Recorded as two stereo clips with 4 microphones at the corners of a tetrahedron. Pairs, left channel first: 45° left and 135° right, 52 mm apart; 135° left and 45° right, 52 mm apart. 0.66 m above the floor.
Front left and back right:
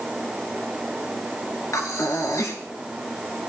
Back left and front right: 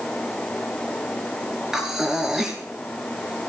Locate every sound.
1.7 s breathing: 35° left, 3 m